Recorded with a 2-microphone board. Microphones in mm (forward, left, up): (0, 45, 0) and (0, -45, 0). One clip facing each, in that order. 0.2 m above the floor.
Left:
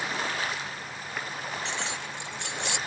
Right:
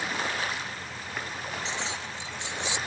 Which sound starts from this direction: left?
Keys jangling, at 1.6 s.